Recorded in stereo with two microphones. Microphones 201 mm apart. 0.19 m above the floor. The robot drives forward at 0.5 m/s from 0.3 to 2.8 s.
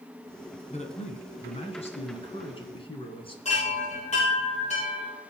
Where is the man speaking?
35° left (ahead or behind), 1.8 m; by 3.4 s 25° left (ahead or behind), 2.5 m.